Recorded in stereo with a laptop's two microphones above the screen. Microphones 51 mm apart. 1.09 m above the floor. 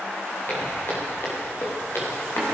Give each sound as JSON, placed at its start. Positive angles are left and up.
{"t": 0.5, "sound": "footsteps", "side_deg": 50, "distance_m": 6.0}